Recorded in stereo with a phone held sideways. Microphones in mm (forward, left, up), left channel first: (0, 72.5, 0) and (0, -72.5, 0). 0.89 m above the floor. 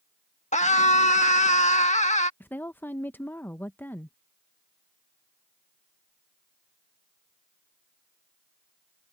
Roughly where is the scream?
Left.